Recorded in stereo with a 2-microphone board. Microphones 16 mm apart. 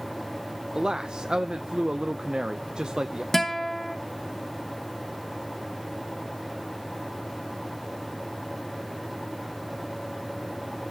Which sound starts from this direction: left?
A guitar, at 3.3 s.